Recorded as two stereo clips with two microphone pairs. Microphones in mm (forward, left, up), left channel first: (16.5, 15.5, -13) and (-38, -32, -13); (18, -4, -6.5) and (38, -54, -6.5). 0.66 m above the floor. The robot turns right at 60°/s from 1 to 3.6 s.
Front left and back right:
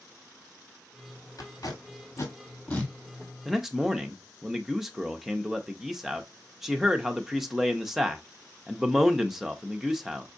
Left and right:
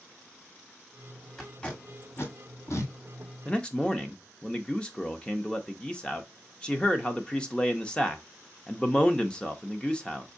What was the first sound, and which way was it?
Tape being pulled, 20° left.